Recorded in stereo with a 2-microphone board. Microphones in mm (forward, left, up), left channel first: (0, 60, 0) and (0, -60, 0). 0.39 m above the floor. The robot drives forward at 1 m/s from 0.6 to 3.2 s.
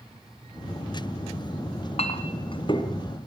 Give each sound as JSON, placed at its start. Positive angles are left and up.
{"t": 1.7, "sound": "a clink", "side_deg": 65, "distance_m": 1.6}